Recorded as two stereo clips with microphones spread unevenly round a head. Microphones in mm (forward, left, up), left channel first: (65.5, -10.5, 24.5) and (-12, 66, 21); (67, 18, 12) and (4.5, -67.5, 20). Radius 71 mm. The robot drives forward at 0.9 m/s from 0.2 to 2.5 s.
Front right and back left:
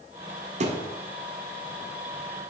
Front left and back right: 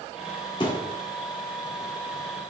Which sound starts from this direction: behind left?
A thud, at 0.6 s.